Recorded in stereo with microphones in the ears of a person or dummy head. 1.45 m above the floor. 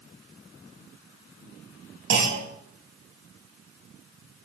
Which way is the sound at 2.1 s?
60° right (ahead or behind).